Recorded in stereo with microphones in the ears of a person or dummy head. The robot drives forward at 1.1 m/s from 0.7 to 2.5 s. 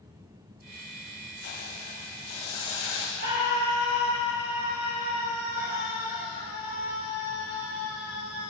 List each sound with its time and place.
1.4 s a hiss: 60° left (ahead or behind), 0.9 m; by 3.1 s 25° left (ahead or behind), 1.9 m
3.2 s a scream: 40° right (ahead or behind), 5 m